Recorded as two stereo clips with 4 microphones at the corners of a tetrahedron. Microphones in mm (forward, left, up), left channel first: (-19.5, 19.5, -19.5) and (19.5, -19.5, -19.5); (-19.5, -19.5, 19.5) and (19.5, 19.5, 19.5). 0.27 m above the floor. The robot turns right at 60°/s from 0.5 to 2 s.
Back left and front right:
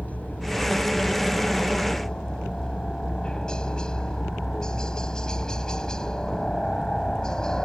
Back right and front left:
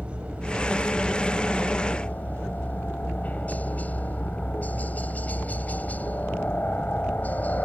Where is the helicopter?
100° left; by 7.7 s 160° right.